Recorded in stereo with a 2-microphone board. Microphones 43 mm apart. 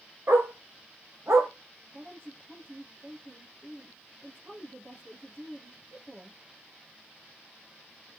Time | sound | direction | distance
0.3 | a dog barking | 75° right (ahead or behind) | 5 m
1.9 | a woman speaking | 75° right (ahead or behind) | 6 m